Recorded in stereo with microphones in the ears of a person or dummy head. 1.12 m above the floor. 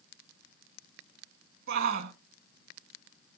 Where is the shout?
50° right (ahead or behind), 1.7 m.